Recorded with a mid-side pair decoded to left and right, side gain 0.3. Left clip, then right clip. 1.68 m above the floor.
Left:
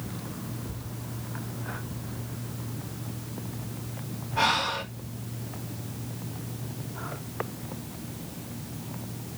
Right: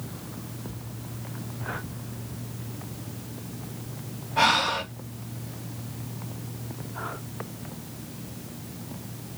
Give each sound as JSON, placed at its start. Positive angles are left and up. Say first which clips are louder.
{"t": 4.4, "sound": "breathing", "louder": "right 3 dB", "azimuth_deg": -50, "distance_m": 3.0}